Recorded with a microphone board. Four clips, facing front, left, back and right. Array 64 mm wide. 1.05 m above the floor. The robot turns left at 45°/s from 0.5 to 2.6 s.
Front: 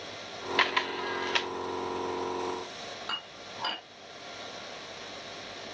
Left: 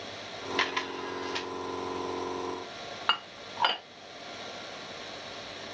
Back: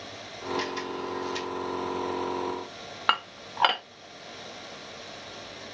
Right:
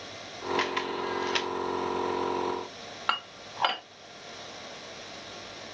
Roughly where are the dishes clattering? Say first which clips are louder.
Even, back 12 dB; behind.